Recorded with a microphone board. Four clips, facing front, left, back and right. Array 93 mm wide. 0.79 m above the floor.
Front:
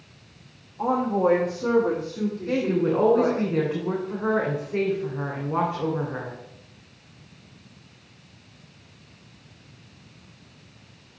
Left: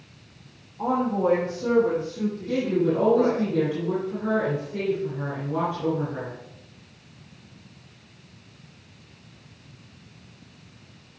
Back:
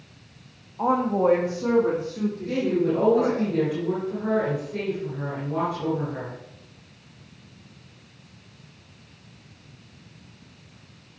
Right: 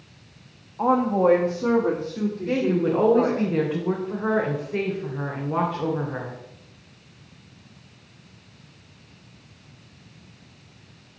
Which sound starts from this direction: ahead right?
A woman speaking, at 2.5 s.